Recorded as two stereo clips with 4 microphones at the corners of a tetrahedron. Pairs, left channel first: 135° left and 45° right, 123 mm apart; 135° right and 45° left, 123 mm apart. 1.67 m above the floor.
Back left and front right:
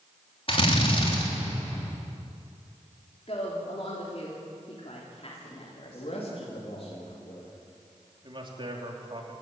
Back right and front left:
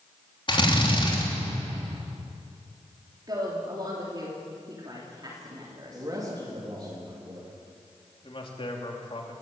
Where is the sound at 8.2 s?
95° right, 3 m.